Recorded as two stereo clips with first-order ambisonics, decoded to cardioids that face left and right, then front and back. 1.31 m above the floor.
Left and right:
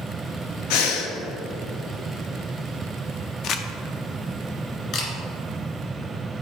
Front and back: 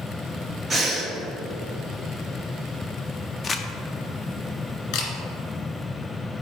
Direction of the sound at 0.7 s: 105° left.